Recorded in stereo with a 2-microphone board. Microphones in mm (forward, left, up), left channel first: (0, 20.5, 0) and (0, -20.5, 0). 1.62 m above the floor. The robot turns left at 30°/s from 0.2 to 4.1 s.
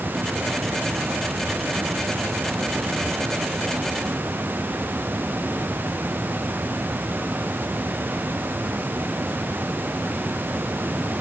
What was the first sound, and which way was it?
Only background noise.